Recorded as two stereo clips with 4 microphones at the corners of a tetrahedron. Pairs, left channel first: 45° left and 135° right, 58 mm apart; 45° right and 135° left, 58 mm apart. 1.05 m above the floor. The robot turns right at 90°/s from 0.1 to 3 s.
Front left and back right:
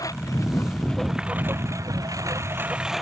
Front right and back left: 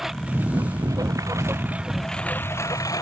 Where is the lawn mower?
50° left; by 3.0 s 45° right.